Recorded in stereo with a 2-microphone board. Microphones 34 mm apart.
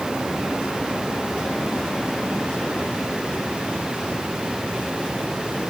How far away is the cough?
I don't hear a cough.